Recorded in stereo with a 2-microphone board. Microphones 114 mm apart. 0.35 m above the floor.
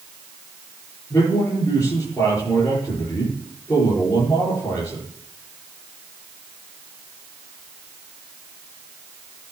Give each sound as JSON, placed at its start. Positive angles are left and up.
{"t": 1.1, "sound": "a man speaking", "side_deg": 25, "distance_m": 6.5}